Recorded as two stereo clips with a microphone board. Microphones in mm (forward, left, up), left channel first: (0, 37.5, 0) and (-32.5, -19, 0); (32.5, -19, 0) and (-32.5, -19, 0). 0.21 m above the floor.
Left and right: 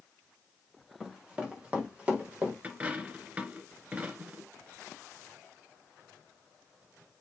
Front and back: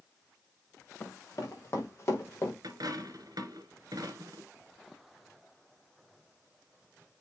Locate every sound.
1.0 s running footsteps: 45° right, 5 m; by 2.5 s 55° right, 5 m
2.6 s a dropped coin: 170° left, 1.3 m